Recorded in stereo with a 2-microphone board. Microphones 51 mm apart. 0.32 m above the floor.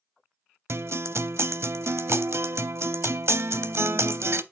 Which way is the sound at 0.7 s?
55° right (ahead or behind).